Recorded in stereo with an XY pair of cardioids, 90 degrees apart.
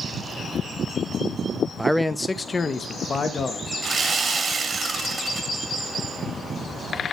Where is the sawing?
50° right, 1.3 m.